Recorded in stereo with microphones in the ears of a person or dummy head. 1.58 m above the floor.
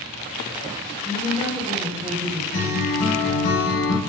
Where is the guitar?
65° left (ahead or behind), 3.5 m.